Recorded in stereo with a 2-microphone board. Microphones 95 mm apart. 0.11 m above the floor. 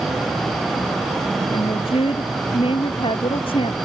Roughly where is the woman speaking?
Left.